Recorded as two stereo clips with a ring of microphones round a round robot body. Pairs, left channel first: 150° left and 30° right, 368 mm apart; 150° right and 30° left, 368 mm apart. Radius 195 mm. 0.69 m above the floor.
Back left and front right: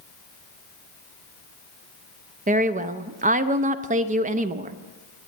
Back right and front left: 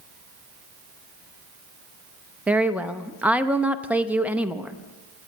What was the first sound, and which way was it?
A woman speaking, 50° right.